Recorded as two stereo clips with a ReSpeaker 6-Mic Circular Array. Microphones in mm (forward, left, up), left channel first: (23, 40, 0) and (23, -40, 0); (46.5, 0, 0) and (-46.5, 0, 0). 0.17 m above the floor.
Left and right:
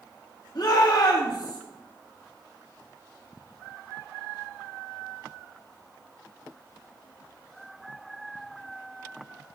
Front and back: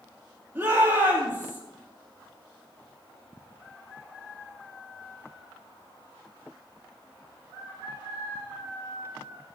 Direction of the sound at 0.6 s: 115° left.